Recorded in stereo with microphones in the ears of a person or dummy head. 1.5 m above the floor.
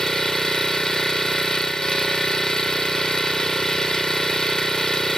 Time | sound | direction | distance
0.0 | an engine running | 5° left (ahead or behind) | ?